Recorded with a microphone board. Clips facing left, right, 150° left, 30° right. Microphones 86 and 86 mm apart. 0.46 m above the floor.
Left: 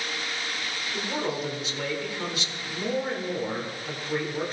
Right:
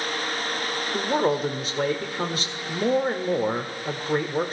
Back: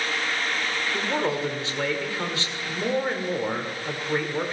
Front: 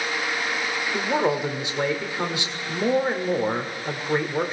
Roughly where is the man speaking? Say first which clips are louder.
Right 7 dB, front 4 dB; right.